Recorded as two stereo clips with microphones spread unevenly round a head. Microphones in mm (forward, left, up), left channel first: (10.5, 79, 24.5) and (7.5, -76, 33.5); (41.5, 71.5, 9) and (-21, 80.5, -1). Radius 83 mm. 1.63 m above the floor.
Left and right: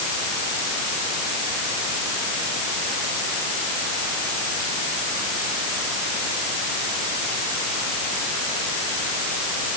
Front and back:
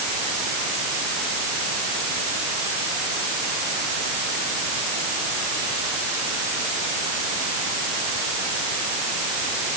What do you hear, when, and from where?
Only background noise.